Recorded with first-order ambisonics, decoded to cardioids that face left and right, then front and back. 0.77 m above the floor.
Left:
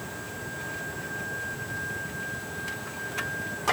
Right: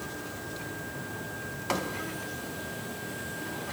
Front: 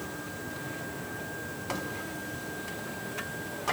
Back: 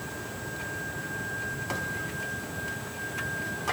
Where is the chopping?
I don't hear chopping.